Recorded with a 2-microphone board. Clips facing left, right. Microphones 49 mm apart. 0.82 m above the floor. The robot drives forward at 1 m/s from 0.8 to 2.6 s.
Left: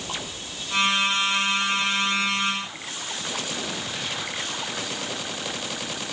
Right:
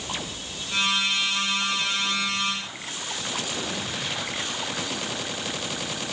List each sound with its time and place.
Only background noise.